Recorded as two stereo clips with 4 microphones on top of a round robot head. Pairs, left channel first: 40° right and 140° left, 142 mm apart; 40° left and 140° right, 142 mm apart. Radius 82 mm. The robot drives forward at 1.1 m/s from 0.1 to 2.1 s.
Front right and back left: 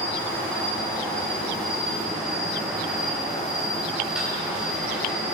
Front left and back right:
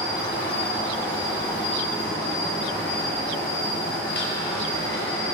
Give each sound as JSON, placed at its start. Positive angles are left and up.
{"t": 0.0, "sound": "an insect", "azimuth_deg": 35, "distance_m": 5.0}